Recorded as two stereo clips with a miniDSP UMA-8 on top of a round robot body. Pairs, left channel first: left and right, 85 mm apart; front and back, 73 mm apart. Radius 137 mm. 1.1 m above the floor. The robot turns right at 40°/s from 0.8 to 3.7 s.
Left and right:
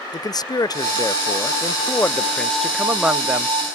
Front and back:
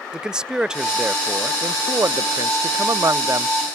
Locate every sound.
0.1 s a man speaking: 105° left, 0.6 m; by 3.5 s 145° right, 0.6 m